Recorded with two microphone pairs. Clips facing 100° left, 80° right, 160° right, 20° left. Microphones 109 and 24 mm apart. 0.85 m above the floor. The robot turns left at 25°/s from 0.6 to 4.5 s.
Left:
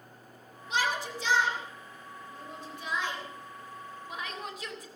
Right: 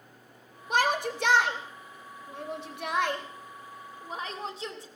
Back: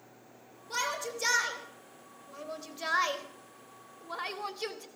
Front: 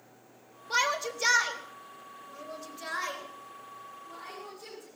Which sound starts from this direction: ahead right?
A shout, at 0.7 s.